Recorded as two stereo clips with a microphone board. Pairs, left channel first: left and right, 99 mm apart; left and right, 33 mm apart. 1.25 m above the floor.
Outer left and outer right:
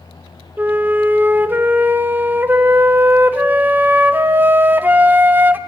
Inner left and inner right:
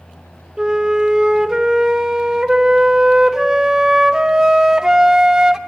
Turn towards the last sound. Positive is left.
turn(degrees=-20)  # may be behind; listen again after turning